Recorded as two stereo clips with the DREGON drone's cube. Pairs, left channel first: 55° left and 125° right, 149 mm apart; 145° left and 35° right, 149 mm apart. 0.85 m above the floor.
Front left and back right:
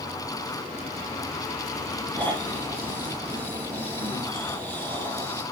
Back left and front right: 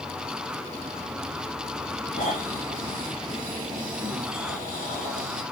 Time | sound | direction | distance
2.1 | snoring | 130° left | 5 m